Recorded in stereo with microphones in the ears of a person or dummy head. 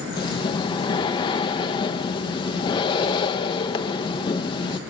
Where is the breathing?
30° left (ahead or behind), 1.0 m.